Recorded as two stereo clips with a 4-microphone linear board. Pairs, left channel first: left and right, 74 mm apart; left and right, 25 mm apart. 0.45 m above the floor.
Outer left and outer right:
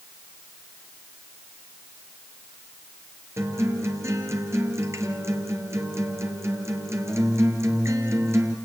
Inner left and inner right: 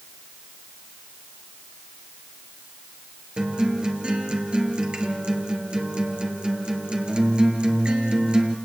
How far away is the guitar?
About 3.5 m.